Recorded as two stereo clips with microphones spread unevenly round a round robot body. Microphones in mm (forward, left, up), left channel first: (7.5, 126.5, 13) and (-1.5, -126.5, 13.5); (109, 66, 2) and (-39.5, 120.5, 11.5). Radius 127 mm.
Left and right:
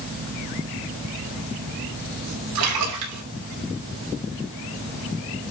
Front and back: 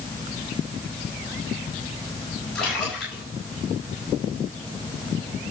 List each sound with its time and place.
2.5 s a splash: 110° right, 4.5 m